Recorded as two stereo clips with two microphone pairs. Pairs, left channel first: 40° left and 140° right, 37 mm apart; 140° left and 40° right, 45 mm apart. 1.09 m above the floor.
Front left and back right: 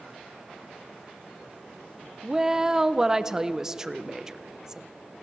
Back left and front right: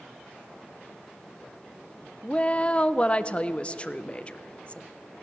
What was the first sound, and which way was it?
A woman speaking, 170° left.